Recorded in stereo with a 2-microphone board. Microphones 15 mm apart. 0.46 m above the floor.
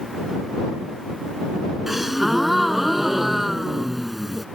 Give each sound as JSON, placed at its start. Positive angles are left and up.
{"t": 1.9, "sound": "a gasp", "side_deg": -10}